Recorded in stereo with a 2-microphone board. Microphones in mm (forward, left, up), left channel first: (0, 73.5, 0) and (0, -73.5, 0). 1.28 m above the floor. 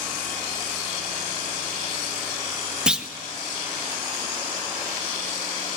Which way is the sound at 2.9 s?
5° right (ahead or behind).